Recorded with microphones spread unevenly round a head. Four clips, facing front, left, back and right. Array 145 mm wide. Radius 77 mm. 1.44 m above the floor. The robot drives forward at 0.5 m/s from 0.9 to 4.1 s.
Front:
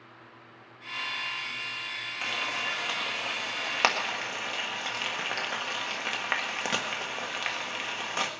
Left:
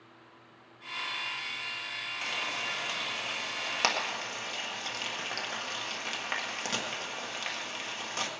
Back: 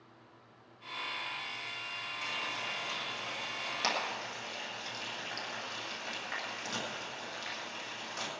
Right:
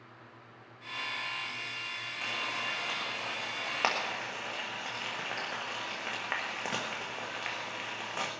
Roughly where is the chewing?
No chewing in this recording.